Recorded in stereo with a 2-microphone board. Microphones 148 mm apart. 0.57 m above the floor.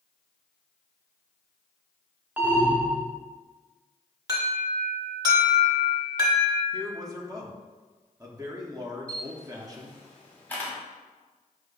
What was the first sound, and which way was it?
An alarm, 10° right (ahead or behind).